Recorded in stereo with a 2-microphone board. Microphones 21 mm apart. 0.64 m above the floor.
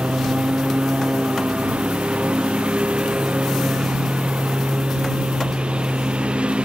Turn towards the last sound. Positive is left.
turn(degrees=-70)  # may be behind; listen again after turning